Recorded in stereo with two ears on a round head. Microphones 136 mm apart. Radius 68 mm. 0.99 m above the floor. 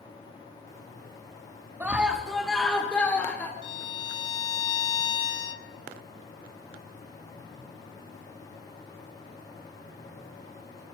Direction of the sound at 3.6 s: 30° left (ahead or behind).